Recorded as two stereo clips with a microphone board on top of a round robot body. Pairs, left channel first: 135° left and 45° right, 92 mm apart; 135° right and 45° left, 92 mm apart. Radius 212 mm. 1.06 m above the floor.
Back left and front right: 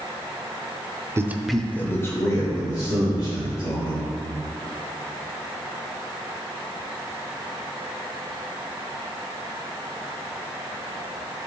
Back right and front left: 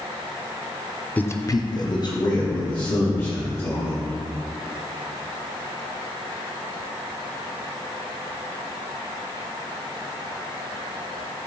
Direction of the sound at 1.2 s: 75° right.